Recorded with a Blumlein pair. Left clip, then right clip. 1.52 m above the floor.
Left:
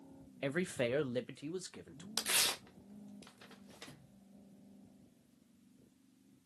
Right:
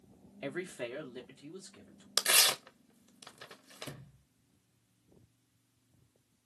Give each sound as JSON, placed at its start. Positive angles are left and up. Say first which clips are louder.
{"t": 0.4, "sound": "a man speaking", "louder": "left 3 dB", "azimuth_deg": 10, "distance_m": 0.5}
{"t": 2.2, "sound": "tearing paper", "louder": "right 7 dB", "azimuth_deg": -25, "distance_m": 0.6}
{"t": 3.9, "sound": "a sliding door", "louder": "right 9 dB", "azimuth_deg": -40, "distance_m": 0.5}